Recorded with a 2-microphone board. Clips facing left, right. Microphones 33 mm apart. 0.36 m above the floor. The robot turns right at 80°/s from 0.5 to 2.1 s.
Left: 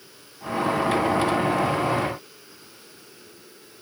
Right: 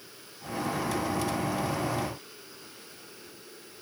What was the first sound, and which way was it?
Only background noise.